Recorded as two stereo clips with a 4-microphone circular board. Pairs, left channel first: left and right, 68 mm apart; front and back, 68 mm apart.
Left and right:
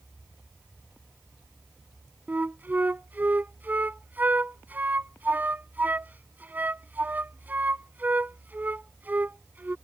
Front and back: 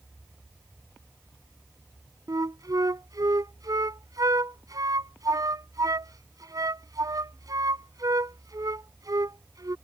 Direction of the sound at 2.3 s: 150° right.